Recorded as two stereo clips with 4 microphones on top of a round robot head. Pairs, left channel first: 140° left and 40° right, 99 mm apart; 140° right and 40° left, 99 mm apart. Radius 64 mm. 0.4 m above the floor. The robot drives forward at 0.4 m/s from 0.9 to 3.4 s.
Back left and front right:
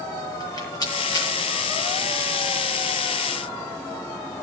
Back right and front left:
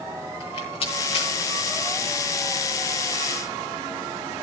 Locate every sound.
0.4 s a rattle: 165° right, 9.5 m